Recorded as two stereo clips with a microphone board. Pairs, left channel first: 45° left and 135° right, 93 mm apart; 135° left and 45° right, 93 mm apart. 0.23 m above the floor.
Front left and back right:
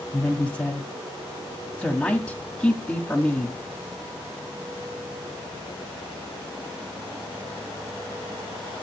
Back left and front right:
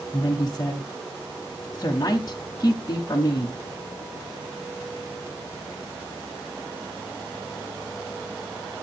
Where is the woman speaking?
120° left, 1.7 m.